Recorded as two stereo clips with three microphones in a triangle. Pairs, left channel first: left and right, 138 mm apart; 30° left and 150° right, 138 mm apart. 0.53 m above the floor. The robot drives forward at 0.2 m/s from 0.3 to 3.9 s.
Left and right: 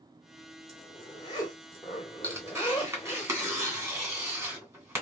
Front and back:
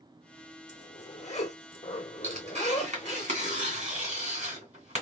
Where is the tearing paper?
155° right, 2.5 m.